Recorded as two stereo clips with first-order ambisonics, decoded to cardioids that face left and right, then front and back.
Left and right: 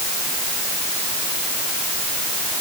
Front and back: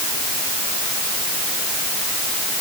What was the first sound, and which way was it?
Only background noise.